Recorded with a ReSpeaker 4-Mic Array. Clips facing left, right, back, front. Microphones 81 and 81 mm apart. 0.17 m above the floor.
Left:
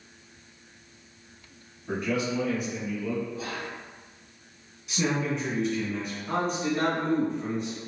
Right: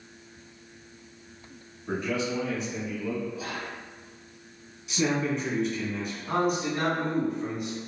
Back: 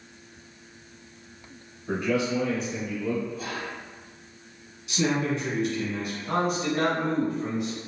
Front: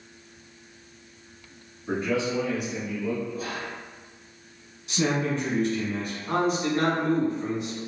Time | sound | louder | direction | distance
1.9 | a man speaking | left 1 dB, back 1 dB | 45° right | 1.5 m
3.3 | whispering | even, front 1 dB | 15° right | 2.0 m
4.9 | a man speaking | right 1 dB, even | straight ahead | 1.3 m
6.3 | a man speaking | right 1 dB, front 2 dB | 25° right | 1.4 m